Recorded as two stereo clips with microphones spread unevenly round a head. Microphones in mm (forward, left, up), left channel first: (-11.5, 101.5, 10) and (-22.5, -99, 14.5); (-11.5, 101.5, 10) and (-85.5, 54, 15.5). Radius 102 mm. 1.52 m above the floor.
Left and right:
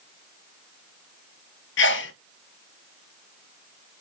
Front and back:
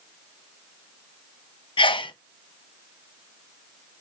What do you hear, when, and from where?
1.8 s a sneeze: 50° left, 1.4 m